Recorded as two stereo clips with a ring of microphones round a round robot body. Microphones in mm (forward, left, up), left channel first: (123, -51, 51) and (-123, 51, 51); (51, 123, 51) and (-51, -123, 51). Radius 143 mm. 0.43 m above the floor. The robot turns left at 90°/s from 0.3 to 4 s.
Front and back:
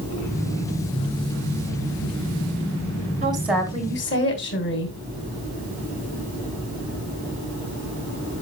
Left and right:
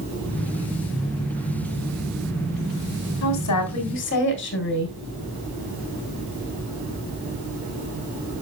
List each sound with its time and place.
3.2 s a woman speaking: 95° left, 3 m; by 5.0 s 25° left, 3 m